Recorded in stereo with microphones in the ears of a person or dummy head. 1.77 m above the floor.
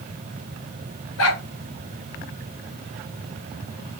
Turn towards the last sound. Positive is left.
turn(degrees=70)  # may be behind; listen again after turning